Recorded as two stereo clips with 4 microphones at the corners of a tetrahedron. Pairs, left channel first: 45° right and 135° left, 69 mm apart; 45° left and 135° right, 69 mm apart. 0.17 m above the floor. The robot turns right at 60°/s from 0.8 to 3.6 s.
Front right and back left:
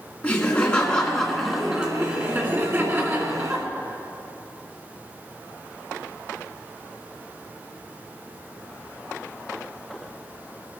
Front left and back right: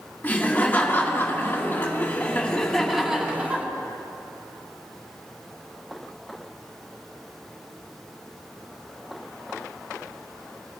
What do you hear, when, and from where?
0.2 s laughter: 10° left, 1.8 m; by 3.6 s straight behind, 1.8 m